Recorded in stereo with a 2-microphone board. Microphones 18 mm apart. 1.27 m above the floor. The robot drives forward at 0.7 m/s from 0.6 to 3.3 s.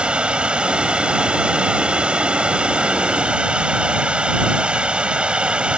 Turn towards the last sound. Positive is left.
turn(degrees=-70)  # may be behind; listen again after turning